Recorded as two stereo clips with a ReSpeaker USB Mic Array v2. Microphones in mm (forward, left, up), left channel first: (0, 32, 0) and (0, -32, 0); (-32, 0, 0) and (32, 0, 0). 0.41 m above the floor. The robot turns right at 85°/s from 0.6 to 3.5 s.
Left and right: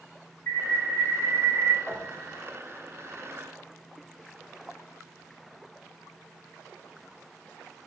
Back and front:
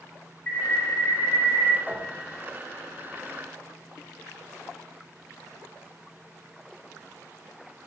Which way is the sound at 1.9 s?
95° left.